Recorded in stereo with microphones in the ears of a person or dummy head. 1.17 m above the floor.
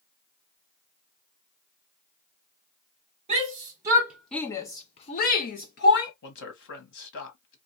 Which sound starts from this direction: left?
A man speaking, at 6.2 s.